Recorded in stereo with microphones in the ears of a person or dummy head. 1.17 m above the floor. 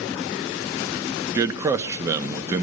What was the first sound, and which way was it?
A man speaking, 15° right (ahead or behind).